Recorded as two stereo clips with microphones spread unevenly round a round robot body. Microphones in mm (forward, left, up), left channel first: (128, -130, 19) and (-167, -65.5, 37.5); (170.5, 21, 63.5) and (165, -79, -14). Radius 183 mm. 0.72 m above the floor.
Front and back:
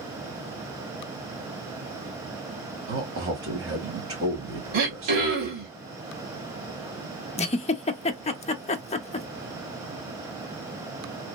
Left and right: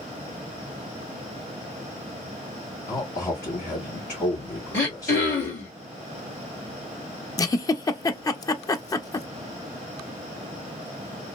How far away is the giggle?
About 0.6 m.